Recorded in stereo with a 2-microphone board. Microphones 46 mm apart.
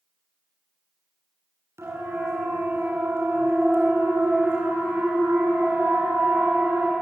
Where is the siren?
80° right, 7.5 m; by 6.9 s 45° right (ahead or behind), 9.5 m.